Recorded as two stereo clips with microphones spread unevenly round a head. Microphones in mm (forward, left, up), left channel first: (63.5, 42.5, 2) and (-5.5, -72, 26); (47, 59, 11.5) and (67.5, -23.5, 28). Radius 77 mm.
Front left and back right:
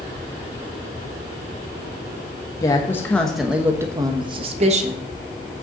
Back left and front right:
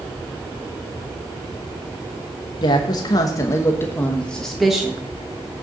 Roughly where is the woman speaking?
Behind left.